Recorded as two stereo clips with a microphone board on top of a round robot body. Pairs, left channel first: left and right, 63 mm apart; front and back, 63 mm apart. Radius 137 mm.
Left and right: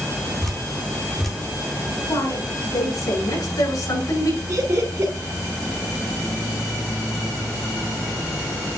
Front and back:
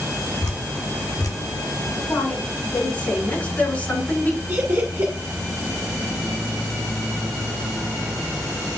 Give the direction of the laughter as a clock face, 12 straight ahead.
4 o'clock.